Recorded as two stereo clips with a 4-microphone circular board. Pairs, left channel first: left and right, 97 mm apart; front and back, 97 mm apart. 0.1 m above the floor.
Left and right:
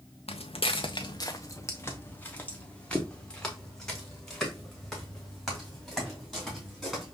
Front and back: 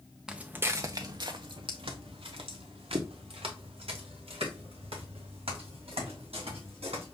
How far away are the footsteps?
About 0.6 m.